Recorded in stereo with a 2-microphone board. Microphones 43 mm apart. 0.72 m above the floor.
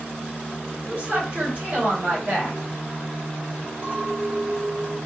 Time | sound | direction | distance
0.8 | a woman speaking | 50° right (ahead or behind) | 1.7 m
3.8 | a clink | 45° right (ahead or behind) | 1.2 m